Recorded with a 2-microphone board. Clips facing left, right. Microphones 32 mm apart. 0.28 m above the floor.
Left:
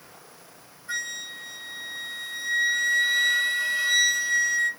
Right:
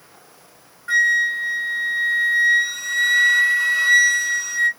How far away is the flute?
About 0.9 m.